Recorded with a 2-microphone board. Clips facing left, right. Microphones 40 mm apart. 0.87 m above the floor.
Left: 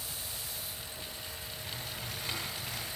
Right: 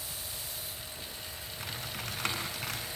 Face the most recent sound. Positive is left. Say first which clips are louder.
# right 4 dB
turn(degrees=-75)  # may be behind; listen again after turning